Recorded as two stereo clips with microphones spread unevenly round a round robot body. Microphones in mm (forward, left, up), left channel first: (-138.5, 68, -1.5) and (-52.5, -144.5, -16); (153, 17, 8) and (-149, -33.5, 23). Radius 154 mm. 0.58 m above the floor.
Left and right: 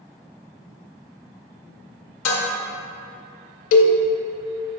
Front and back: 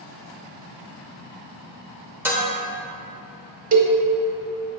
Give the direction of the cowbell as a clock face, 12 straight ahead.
8 o'clock.